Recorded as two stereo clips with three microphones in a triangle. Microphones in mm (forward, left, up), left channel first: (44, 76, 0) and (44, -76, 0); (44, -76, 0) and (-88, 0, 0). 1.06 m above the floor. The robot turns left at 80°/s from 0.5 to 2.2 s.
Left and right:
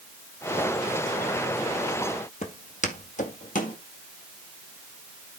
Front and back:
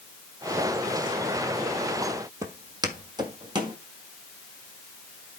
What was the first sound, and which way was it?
Footsteps, 95° left.